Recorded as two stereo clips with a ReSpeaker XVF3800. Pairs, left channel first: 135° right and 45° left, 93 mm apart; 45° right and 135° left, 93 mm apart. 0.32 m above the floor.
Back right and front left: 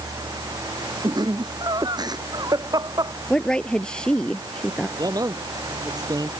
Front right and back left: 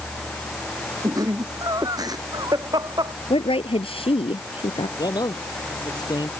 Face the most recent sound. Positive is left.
turn(degrees=0)